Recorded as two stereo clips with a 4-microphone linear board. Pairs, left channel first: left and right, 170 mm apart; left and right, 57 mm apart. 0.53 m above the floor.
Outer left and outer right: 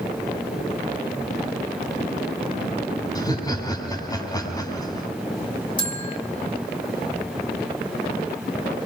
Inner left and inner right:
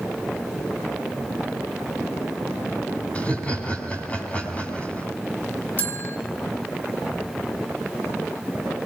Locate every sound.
3.1 s laughter: 25° left (ahead or behind), 4 m
5.8 s a bell: 30° left (ahead or behind), 1.3 m